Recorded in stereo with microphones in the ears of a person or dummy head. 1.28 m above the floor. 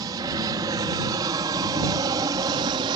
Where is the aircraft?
20° right (ahead or behind); by 3.0 s 25° right (ahead or behind).